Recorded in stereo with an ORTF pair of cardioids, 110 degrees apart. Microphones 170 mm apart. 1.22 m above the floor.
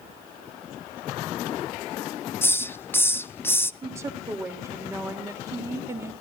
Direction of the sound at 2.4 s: 15° left.